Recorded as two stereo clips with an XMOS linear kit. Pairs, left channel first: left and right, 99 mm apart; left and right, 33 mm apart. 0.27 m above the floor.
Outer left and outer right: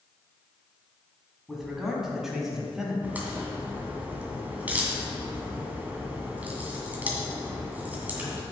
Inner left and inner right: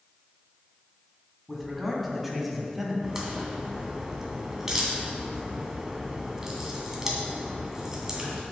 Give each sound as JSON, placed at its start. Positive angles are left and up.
{"t": 1.5, "sound": "a man speaking", "side_deg": 0, "distance_m": 2.5}
{"t": 3.0, "sound": "a crack", "side_deg": -15, "distance_m": 1.9}